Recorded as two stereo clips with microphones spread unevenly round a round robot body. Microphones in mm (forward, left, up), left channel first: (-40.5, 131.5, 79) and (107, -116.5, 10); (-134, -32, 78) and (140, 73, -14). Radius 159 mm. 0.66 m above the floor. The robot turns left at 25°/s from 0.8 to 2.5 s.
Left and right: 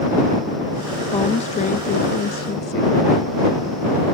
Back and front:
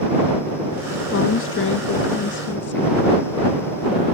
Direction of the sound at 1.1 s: 165° right.